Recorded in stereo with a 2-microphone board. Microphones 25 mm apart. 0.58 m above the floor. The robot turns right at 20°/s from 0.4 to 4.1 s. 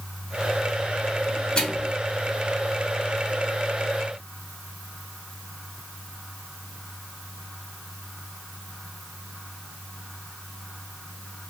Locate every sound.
1.6 s a microwave: 40° left (ahead or behind), 3.5 m; by 1.9 s 45° left (ahead or behind), 3.5 m